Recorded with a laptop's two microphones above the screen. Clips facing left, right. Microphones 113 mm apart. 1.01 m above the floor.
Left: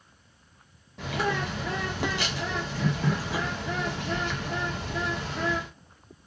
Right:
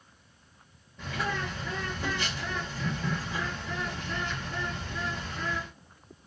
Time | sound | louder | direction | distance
1.0 | a bird | left 4 dB | 80° left | 0.6 m